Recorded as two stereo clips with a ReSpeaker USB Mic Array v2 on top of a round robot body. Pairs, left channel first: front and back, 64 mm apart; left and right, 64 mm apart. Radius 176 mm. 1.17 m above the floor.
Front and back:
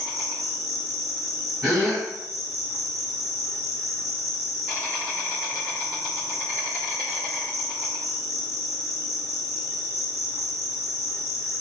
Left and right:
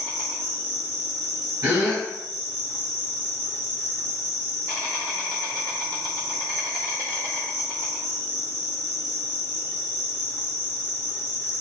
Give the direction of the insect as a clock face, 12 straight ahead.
3 o'clock.